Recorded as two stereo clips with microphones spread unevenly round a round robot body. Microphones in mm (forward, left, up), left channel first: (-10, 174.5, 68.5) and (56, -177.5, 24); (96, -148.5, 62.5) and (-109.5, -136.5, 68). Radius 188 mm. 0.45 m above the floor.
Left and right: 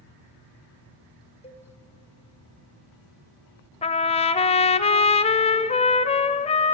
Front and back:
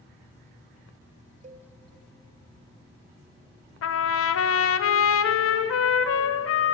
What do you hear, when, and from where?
1.4 s a cowbell: 175° left, 1.3 m
3.8 s a trumpet: 25° left, 0.7 m